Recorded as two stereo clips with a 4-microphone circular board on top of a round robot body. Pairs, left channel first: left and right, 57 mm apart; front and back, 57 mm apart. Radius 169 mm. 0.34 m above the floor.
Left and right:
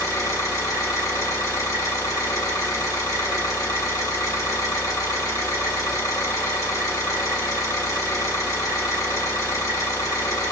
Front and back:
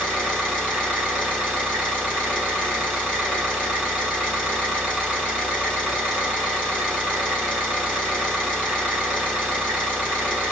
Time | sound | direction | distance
0.0 | an engine running | 65° left | 2.5 m